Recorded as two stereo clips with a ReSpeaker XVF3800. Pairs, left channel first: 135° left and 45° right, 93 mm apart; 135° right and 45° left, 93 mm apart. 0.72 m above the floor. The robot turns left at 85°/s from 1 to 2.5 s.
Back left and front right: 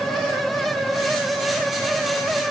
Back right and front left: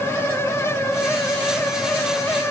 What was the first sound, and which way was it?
Only background noise.